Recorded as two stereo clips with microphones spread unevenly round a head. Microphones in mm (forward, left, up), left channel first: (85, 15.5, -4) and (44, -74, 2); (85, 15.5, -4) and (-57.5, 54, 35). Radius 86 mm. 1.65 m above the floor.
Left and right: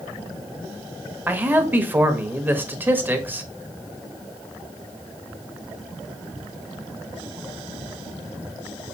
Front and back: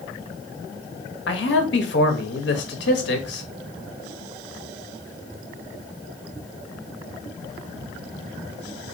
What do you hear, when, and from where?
1.3 s a man speaking: 45° right, 0.9 m